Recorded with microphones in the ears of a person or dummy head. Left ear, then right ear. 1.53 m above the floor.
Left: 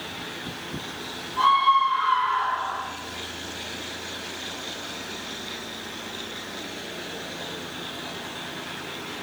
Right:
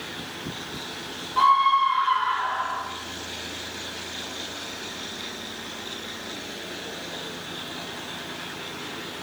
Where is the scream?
45° right (ahead or behind), 1.6 m; by 2.8 s 20° right (ahead or behind), 2.5 m.